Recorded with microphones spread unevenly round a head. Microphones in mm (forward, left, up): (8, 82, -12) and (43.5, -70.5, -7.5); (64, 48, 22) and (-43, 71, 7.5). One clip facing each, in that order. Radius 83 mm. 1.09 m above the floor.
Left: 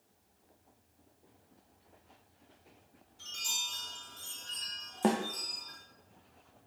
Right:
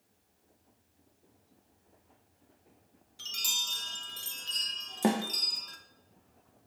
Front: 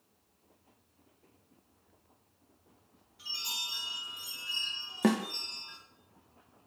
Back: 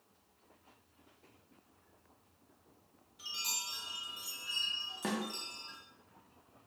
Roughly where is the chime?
Behind right.